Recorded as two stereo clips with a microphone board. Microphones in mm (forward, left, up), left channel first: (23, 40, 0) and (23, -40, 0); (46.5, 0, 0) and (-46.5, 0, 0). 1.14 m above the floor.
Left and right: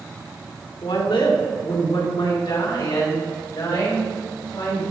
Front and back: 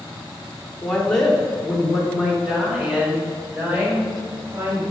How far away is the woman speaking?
About 2 m.